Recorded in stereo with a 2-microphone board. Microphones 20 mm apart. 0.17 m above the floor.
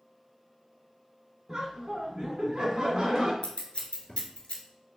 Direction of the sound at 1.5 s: 20° right (ahead or behind).